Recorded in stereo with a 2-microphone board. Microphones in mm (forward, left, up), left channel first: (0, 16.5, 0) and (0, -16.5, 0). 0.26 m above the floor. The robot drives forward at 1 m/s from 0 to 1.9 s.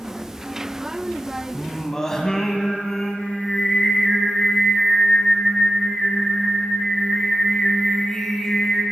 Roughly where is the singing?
Centre.